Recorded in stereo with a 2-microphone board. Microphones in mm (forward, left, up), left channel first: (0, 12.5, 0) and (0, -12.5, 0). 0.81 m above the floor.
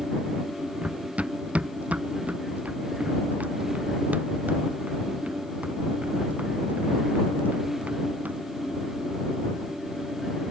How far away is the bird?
No bird in this recording.